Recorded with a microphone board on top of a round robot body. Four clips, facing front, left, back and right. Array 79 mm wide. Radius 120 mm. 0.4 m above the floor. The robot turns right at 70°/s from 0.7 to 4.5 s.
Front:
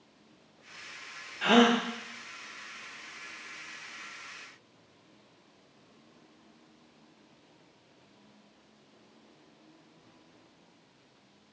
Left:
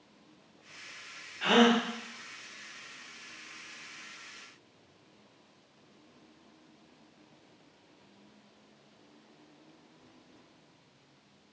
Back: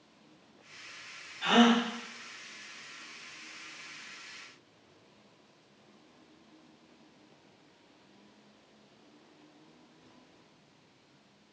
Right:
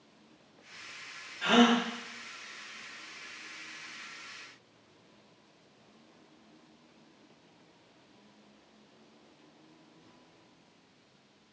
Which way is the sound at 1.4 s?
15° left.